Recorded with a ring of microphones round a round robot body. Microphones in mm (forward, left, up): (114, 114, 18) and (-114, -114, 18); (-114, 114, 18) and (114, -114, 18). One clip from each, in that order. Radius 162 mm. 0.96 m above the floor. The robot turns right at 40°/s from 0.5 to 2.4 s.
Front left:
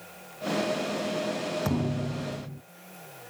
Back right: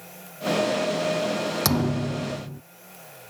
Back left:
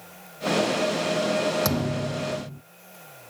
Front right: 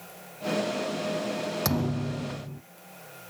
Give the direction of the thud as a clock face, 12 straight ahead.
5 o'clock.